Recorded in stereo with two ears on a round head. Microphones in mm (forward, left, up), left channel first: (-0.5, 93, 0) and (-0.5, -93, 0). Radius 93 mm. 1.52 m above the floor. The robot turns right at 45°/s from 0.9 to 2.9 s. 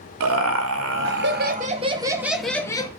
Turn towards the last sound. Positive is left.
turn(degrees=20)